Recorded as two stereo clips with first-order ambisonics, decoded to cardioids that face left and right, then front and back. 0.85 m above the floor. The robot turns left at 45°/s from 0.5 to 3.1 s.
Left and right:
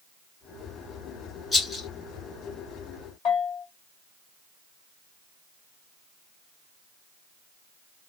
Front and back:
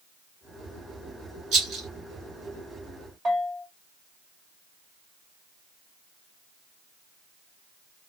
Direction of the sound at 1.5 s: 170° left.